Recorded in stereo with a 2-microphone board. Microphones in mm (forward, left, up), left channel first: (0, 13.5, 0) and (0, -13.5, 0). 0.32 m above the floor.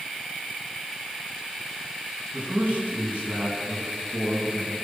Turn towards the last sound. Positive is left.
turn(degrees=-60)  # may be behind; listen again after turning